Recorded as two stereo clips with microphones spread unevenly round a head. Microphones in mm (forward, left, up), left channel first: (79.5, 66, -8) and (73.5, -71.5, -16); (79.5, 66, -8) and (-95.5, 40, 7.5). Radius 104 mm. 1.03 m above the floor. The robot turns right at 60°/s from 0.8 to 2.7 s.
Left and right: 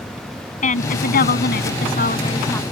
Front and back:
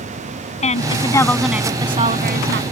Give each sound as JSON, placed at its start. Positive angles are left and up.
{"t": 0.6, "sound": "a woman speaking", "azimuth_deg": 60}